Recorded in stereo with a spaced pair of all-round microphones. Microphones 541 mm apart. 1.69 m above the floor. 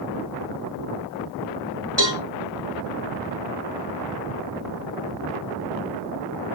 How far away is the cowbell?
About 3.5 m.